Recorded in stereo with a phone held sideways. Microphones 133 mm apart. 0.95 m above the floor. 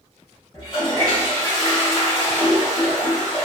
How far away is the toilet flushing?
About 1.3 m.